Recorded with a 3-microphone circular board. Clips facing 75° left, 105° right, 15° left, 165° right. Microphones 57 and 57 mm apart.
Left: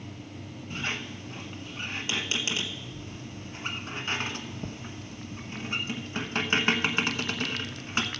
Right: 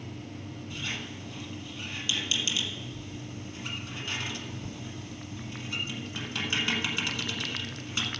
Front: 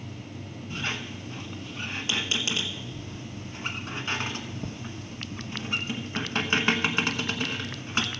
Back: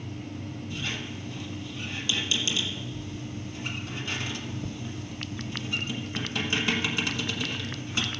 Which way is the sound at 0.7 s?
40° left.